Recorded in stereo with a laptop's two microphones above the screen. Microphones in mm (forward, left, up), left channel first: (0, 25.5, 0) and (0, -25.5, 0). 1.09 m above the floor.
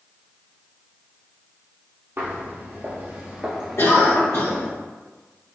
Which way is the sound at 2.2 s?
50° right (ahead or behind).